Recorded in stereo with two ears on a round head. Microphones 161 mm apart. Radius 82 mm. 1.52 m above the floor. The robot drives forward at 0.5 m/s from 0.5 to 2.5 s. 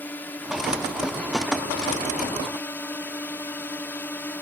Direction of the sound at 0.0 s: 10° left (ahead or behind).